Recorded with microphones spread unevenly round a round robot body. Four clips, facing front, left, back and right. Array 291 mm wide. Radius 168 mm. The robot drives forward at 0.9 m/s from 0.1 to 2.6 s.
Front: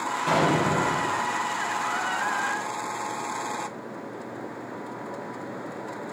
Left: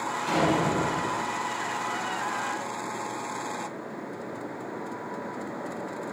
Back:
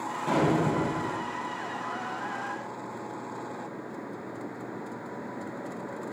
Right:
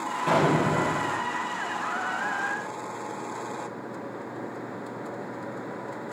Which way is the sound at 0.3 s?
55° right.